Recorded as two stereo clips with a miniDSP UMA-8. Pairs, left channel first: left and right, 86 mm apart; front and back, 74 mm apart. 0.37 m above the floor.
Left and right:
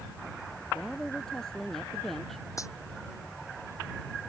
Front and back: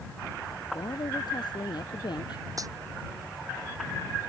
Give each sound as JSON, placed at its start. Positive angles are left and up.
{"t": 0.7, "sound": "a woman speaking", "azimuth_deg": 10}
{"t": 2.6, "sound": "a dropped coin", "azimuth_deg": 140}